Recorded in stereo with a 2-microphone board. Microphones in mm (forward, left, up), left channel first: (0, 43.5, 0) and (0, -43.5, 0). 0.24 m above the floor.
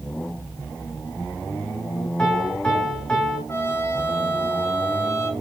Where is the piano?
10° left (ahead or behind), 4 m.